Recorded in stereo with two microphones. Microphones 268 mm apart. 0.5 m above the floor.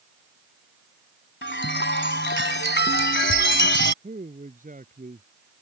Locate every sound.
1.4 s a chime: 45° left (ahead or behind)
4.0 s a man speaking: 30° right (ahead or behind)